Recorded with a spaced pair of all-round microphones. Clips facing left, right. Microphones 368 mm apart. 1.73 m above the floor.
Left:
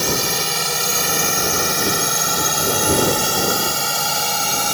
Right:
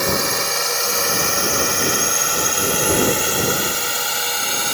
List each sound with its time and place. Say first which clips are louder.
0.0 s a drone: right 1 dB; 45° left (ahead or behind); by 4.7 s 60° left (ahead or behind)